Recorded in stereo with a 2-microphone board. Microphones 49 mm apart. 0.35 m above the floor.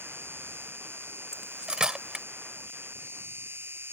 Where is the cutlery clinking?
15° right (ahead or behind).